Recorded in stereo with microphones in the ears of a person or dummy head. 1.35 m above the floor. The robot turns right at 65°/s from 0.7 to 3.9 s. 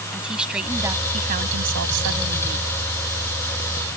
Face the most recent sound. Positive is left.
turn(degrees=35)